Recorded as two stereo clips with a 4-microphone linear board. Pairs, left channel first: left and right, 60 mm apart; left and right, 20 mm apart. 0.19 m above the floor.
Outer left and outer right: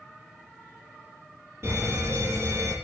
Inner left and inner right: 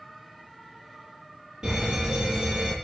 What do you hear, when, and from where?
1.6 s a fire alarm: 45° right (ahead or behind), 7 m